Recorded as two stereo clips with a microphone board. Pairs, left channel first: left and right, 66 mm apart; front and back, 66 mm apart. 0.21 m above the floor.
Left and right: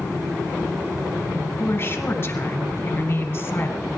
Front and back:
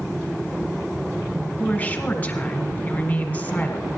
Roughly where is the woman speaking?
Ahead left.